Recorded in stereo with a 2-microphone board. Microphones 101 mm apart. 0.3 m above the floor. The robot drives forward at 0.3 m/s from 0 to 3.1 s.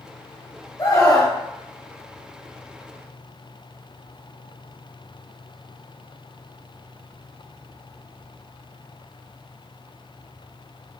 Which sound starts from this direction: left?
A scream, at 0.8 s.